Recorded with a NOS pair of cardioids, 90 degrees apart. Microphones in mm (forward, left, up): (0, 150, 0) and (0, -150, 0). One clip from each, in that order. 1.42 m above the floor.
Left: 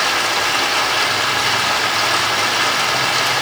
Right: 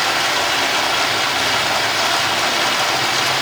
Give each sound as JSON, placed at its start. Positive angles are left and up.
{"t": 0.0, "sound": "running water", "azimuth_deg": -5, "distance_m": 3.0}